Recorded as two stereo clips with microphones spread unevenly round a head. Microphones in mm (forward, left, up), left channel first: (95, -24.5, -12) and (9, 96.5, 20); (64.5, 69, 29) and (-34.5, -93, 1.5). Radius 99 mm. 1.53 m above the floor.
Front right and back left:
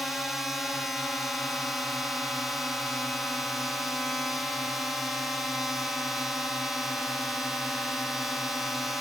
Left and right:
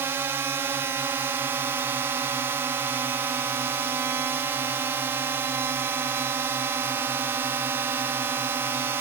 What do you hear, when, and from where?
0.0 s a drone: 110° right